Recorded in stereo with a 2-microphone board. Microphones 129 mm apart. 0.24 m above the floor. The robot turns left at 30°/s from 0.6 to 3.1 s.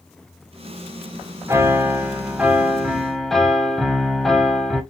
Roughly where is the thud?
I don't hear a thud.